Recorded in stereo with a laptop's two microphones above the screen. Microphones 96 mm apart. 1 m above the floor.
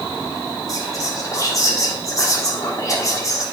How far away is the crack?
I don't hear a crack.